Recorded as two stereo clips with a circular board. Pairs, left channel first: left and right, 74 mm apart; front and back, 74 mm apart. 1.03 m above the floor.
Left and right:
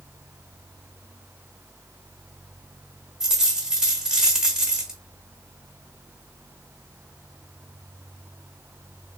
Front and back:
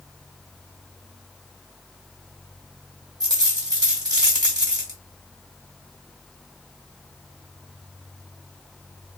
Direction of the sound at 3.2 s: 170° right.